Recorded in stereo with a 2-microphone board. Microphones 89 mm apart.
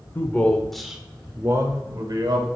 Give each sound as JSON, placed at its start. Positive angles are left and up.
{"t": 0.1, "sound": "a man speaking", "side_deg": 25, "distance_m": 1.1}